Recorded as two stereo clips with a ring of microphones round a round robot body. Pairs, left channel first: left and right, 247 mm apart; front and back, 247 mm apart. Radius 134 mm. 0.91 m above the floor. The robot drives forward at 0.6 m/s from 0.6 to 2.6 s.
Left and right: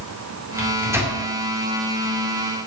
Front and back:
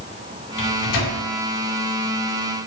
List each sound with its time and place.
0.6 s a microwave: 10° right, 2.5 m